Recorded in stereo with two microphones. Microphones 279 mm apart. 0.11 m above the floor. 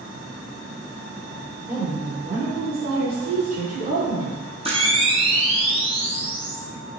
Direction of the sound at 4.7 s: 20° right (ahead or behind).